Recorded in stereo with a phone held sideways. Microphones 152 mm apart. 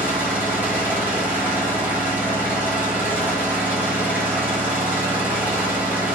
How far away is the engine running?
About 1.3 m.